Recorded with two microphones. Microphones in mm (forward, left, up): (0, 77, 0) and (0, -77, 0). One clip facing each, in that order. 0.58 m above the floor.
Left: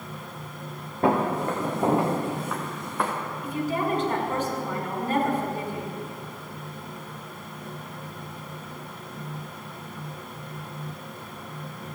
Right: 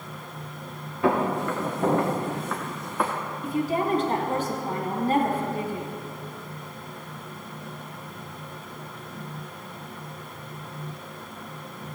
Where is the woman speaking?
35° right (ahead or behind), 2.5 m.